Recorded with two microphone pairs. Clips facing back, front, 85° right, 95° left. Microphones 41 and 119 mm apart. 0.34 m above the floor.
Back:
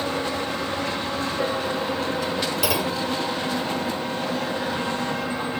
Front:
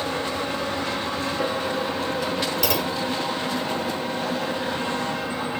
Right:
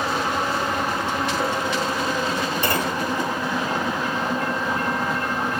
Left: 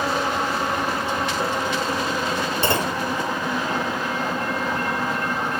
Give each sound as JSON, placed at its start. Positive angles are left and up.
{"t": 2.6, "sound": "a clunk", "azimuth_deg": 110, "distance_m": 0.7}